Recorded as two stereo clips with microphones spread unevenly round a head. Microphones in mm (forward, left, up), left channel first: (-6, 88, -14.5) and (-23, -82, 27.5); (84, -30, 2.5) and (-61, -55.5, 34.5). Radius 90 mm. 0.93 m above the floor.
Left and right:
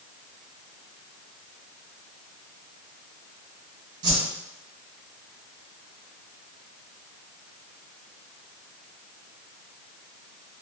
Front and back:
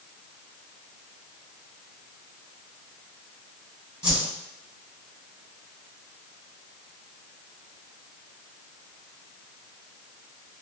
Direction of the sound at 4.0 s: 90° right.